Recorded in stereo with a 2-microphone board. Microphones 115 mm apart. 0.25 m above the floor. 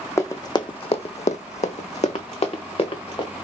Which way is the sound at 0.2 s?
25° left (ahead or behind).